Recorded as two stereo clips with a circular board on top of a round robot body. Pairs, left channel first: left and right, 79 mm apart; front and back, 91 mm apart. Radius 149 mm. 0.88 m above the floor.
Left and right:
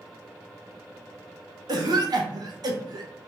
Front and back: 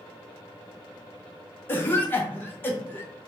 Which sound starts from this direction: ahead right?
A cough, at 1.7 s.